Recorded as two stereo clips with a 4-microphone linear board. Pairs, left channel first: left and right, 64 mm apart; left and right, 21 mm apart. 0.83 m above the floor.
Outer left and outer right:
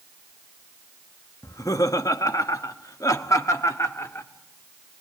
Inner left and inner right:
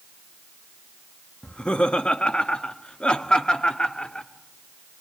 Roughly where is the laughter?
Left.